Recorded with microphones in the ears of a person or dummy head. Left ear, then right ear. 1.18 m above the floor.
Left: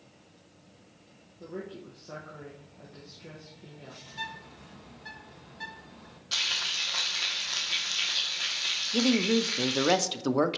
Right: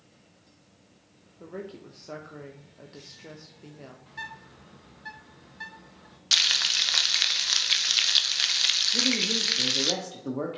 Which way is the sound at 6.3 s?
55° right (ahead or behind).